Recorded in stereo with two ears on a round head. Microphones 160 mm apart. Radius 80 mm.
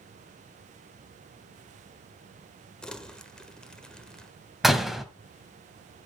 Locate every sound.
2.8 s crumpling: 5° left (ahead or behind), 1.5 m
4.6 s a door slam: centre (ahead or behind), 1.7 m